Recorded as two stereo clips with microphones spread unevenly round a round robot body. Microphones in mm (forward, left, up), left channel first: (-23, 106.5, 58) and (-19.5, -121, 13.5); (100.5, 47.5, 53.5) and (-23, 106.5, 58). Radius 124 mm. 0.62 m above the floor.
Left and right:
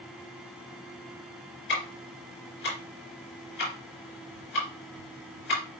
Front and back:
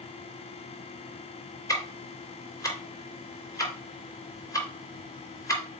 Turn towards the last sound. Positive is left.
turn(degrees=40)